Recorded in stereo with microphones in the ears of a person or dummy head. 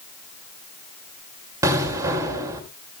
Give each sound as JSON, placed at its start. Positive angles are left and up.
{"t": 1.6, "sound": "an explosion", "side_deg": -20, "distance_m": 2.5}